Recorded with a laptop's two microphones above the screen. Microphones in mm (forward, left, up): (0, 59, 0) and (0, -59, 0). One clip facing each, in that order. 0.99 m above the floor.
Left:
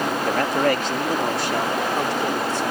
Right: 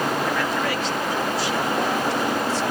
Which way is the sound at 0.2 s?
45° left (ahead or behind).